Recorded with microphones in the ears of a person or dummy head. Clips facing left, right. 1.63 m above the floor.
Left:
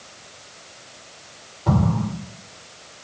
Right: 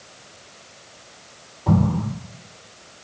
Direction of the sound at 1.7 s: 5° left (ahead or behind).